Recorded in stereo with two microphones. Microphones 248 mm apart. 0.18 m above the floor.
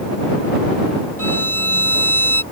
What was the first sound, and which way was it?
A violin, 65° right (ahead or behind).